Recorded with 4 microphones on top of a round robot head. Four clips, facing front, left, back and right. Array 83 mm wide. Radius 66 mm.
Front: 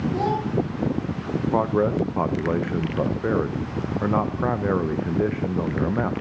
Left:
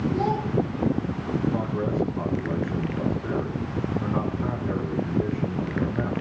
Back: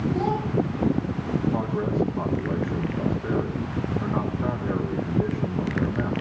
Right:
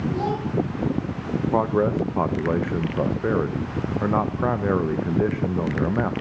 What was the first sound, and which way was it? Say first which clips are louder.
A child speaking: left 1 dB, front 1 dB; 5° right.